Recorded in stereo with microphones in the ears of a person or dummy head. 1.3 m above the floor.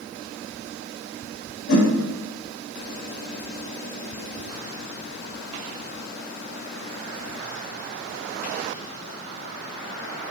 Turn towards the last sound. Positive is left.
turn(degrees=75)  # may be behind; listen again after turning